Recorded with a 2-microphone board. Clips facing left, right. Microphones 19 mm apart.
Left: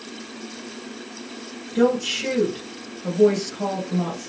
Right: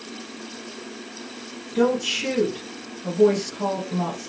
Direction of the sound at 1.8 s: Centre (ahead or behind).